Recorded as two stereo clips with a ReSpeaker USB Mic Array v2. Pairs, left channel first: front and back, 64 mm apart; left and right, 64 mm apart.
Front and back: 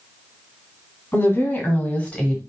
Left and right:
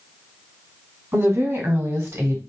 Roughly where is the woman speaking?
Ahead right.